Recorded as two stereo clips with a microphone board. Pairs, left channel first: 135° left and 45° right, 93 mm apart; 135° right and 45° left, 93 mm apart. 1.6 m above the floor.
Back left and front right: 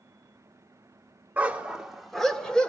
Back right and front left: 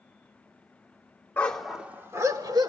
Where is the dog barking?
95° right, 1.2 m; by 2.7 s 55° left, 1.8 m.